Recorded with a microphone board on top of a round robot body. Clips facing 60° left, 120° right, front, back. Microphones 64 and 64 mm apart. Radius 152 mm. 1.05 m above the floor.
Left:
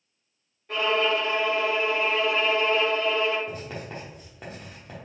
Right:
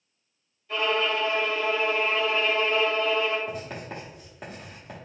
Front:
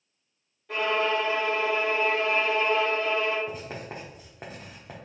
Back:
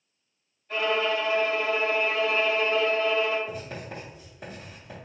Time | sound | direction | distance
0.7 | a violin | 15° left | 1.3 m
3.5 | writing | 35° right | 0.6 m